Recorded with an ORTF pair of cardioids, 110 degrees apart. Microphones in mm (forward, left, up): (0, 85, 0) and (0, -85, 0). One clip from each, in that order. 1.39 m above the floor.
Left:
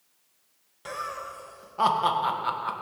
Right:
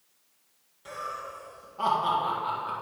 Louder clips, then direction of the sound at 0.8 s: Left 2 dB; 50° left.